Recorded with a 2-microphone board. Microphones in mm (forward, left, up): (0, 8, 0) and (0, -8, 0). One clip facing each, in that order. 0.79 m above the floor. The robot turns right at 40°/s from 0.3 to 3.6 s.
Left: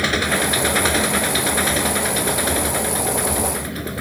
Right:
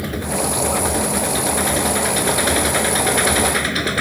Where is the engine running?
110° left; by 4.0 s 120° right.